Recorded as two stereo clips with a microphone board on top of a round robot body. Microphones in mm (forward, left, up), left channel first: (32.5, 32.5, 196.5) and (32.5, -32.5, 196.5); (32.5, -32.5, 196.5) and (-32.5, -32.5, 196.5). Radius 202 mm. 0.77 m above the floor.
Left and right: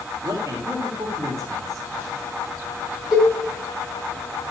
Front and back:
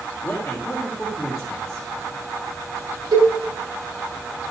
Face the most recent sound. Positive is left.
turn(degrees=-175)